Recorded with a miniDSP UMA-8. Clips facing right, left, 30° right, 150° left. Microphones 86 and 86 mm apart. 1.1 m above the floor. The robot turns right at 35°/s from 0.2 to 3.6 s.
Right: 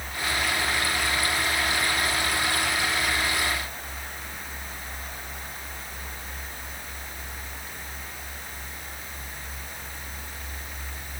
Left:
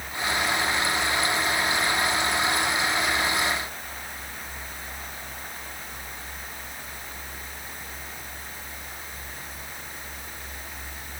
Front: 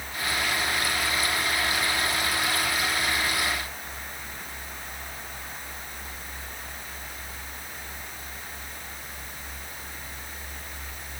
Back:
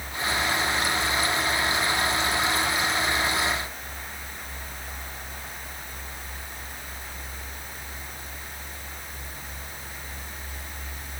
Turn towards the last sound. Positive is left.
No sound to turn to.